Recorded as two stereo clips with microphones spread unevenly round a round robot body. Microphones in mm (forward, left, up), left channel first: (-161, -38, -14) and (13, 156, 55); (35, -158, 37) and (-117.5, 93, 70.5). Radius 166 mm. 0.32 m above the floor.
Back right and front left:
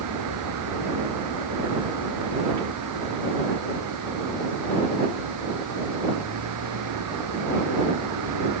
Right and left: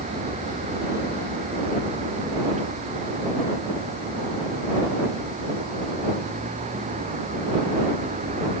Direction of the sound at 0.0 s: 50° left.